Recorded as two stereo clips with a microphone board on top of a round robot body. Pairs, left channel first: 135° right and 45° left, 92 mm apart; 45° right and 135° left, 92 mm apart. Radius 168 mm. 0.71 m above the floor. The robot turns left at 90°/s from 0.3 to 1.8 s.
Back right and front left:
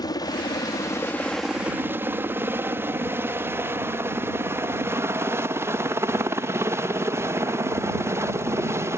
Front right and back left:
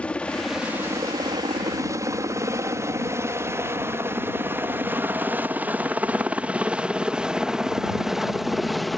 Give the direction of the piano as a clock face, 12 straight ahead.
No piano in this recording.